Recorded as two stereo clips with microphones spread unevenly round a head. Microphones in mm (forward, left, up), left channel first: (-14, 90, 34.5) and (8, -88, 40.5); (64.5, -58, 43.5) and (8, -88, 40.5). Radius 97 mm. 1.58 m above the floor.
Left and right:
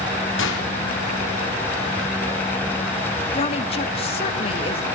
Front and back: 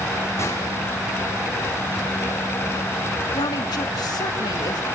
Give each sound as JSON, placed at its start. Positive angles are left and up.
{"t": 0.4, "sound": "a gunshot", "azimuth_deg": 95, "distance_m": 4.0}
{"t": 3.4, "sound": "a woman speaking", "azimuth_deg": 40, "distance_m": 1.9}